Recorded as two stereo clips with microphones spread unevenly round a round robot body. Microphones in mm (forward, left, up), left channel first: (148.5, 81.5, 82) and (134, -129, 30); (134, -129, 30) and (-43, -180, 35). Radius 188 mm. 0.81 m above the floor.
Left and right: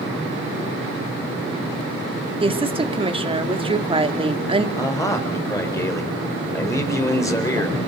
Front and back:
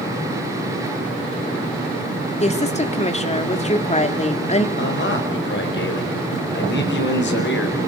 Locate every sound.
2.4 s a woman speaking: 35° right, 2.5 m
4.8 s a man speaking: 5° left, 4.5 m